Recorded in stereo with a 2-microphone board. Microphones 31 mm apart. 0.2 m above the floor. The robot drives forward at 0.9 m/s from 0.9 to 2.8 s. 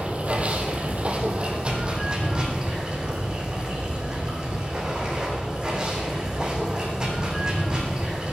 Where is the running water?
45° right (ahead or behind), 2 m; by 8.3 s 25° right (ahead or behind), 3.5 m.